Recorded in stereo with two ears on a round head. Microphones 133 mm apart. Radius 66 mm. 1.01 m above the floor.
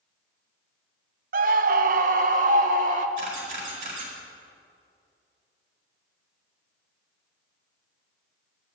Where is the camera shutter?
60° right (ahead or behind), 4.5 m.